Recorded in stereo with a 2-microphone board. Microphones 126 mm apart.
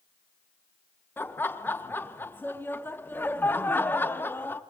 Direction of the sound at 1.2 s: 15° left (ahead or behind).